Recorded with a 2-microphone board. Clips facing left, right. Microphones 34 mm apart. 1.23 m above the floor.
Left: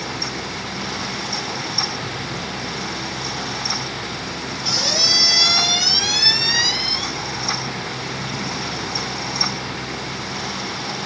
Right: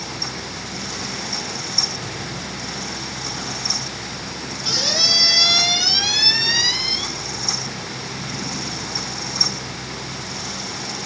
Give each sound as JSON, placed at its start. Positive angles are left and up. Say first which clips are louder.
{"t": 4.6, "sound": "a squeak", "louder": "even", "side_deg": -10, "distance_m": 1.2}